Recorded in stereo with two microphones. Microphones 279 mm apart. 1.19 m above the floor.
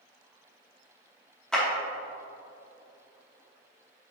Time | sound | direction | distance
1.5 | a clap | centre (ahead or behind) | 2.5 m